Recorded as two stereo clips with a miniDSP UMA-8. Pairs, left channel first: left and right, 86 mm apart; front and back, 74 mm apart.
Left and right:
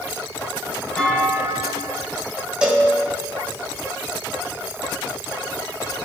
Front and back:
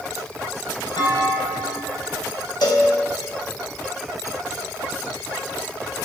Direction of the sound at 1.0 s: 10° left.